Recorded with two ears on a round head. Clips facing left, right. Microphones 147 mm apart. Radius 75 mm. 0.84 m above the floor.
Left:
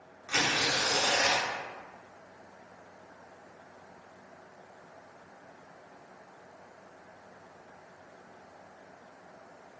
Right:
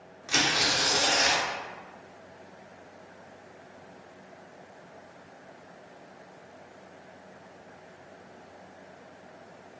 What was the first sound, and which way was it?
Tearing paper, 45° right (ahead or behind).